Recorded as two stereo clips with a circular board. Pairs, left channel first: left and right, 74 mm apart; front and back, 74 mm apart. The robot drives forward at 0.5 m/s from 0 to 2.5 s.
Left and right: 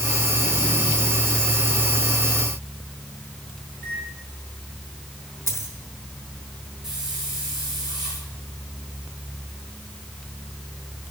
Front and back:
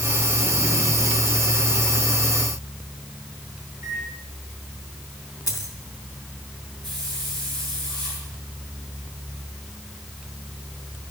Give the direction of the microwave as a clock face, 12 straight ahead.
7 o'clock.